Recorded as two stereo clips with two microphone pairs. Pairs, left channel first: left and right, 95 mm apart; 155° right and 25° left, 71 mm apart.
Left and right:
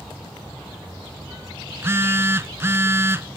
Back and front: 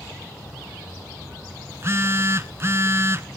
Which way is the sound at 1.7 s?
25° right.